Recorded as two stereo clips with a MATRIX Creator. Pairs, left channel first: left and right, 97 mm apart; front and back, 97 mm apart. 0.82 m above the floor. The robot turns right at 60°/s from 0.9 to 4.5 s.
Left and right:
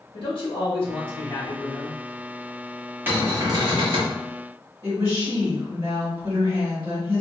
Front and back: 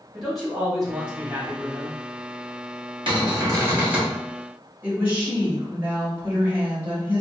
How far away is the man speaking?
About 1.4 m.